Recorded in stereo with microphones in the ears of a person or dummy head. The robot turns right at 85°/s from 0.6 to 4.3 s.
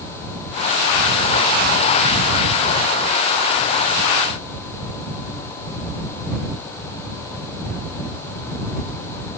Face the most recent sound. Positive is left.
No sound to turn to.